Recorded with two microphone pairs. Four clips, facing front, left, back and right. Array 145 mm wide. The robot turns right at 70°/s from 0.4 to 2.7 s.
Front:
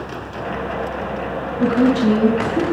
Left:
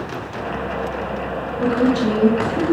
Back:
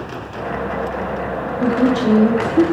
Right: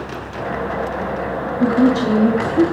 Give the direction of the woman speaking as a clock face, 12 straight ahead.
2 o'clock.